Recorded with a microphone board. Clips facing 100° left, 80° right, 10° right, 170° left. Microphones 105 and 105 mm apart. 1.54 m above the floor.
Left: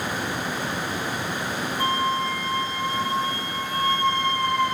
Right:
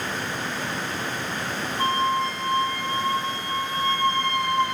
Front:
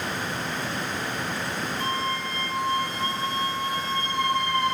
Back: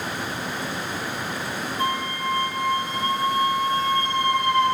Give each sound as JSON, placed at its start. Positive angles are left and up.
{"t": 1.8, "sound": "a flute", "azimuth_deg": -150, "distance_m": 0.7}